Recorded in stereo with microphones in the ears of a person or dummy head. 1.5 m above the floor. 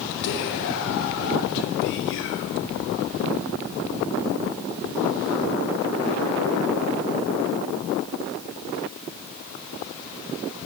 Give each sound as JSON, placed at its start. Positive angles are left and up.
{"t": 0.2, "sound": "whispering", "side_deg": 60, "distance_m": 0.7}